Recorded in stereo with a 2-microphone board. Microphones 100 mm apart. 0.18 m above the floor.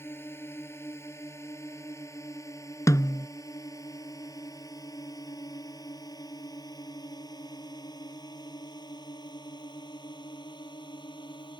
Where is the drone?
25° left (ahead or behind); by 11.6 s 50° left (ahead or behind).